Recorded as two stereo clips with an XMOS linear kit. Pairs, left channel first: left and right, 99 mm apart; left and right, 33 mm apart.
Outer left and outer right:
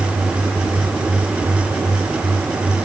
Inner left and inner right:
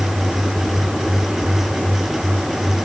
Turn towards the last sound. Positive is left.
No sound to turn to.